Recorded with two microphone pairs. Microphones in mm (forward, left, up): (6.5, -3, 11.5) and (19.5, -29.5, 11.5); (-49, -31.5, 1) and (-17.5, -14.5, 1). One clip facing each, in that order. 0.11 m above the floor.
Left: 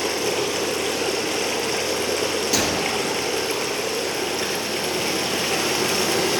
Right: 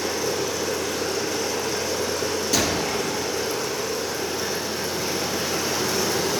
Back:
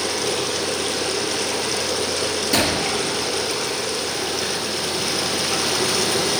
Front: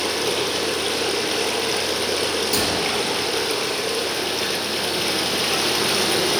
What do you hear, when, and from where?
0.0 s running water: 105° left, 1.7 m
2.5 s a gunshot: 160° right, 1.4 m